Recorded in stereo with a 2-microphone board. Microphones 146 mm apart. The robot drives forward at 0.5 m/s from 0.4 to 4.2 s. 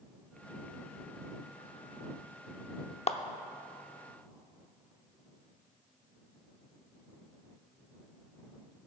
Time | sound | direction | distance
3.1 | a clap | 50° left (ahead or behind) | 0.7 m